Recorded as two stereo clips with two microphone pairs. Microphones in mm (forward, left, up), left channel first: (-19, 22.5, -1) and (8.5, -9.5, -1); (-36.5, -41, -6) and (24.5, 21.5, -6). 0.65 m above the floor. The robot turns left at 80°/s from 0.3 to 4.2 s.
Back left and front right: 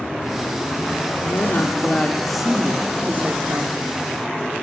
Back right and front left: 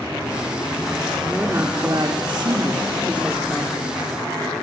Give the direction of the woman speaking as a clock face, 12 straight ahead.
8 o'clock.